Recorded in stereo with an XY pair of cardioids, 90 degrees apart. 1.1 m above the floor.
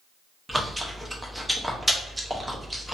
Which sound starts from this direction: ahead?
Chewing, at 0.5 s.